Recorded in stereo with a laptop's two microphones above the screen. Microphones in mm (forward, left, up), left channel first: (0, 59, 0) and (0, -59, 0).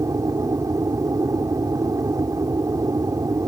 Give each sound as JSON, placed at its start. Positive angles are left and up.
{"t": 0.0, "sound": "an aircraft", "side_deg": -30}